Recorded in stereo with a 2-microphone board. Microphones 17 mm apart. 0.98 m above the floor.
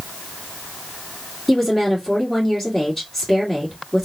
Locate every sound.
1.5 s a woman speaking: 20° left (ahead or behind), 1.7 m